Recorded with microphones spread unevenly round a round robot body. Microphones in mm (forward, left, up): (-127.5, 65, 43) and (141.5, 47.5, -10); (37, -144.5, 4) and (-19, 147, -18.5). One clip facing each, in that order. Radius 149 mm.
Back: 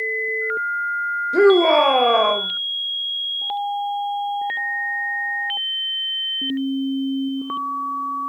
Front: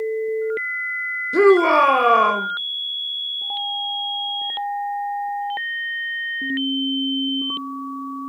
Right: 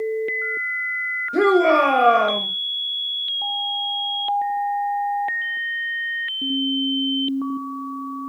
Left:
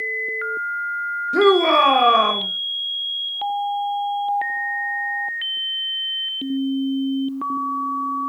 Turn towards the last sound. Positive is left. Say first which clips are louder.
# even, left 1 dB
turn(degrees=40)